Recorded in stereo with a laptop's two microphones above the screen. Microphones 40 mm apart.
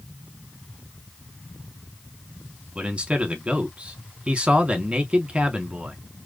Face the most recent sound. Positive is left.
turn(degrees=-30)  # may be behind; listen again after turning